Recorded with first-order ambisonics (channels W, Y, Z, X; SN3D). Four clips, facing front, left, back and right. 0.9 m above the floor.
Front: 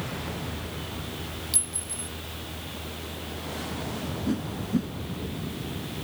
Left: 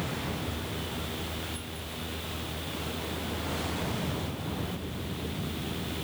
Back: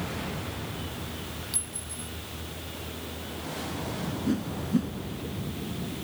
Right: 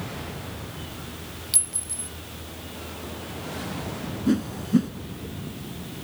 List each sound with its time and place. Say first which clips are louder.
1.5 s a clink: right 5 dB, front 4 dB; 70° right
4.3 s a whoosh: right 11 dB, back 1 dB; 90° right